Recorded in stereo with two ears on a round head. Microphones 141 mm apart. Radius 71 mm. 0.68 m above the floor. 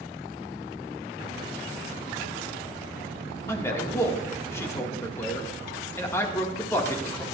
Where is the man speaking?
20° left (ahead or behind), 1.8 m.